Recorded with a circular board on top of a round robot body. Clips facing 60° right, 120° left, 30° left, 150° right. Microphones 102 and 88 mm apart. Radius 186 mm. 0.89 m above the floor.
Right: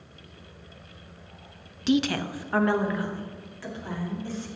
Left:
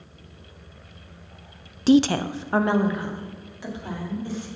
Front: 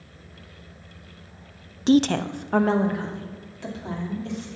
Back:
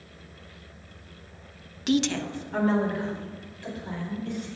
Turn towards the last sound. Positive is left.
turn(degrees=45)